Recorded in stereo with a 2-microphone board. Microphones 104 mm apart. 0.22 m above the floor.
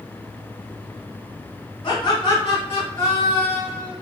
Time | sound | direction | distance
1.8 | laughter | 40° left (ahead or behind) | 1.7 m